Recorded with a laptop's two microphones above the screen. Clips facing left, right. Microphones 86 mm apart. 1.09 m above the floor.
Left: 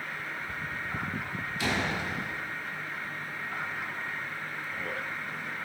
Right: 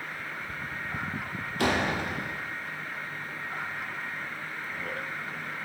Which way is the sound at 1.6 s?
55° right (ahead or behind).